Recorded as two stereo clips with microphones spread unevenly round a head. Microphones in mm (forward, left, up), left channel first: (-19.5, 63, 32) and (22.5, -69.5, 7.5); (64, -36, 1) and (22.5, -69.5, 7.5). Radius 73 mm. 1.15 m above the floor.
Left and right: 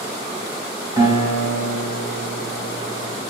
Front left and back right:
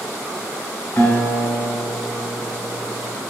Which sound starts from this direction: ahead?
A guitar, at 1.0 s.